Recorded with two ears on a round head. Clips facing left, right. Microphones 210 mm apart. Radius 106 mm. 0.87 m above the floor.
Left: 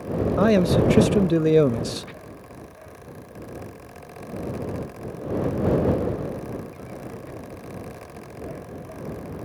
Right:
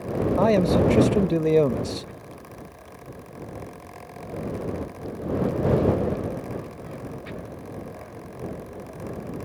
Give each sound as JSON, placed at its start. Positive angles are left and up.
{"t": 0.4, "sound": "a man speaking", "side_deg": 15}